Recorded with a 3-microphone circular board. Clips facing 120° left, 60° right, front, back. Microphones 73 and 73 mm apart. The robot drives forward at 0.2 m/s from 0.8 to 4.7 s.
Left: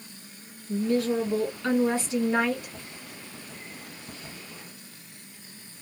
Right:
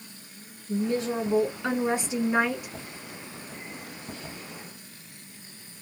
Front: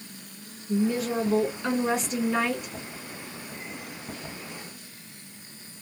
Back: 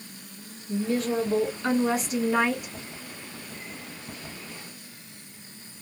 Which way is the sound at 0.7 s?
75° right.